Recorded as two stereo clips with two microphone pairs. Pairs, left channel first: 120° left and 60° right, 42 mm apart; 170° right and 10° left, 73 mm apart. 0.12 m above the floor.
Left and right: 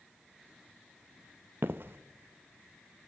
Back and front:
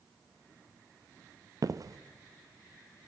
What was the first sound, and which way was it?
Footsteps, 25° right.